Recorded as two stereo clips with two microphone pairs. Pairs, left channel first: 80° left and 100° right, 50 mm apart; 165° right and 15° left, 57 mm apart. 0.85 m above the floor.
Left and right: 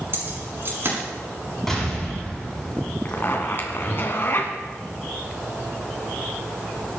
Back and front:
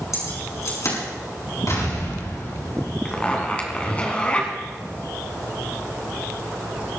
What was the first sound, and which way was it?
Keys jangling, 135° right.